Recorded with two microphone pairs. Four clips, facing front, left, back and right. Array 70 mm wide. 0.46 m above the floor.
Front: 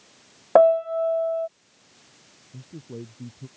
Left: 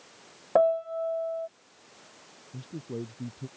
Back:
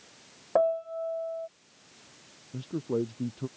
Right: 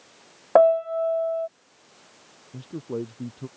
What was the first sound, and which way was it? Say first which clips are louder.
A piano: right 6 dB, front 10 dB; 40° right.